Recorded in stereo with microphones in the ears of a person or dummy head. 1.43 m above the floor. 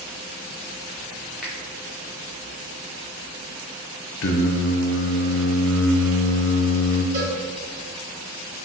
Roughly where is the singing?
Left.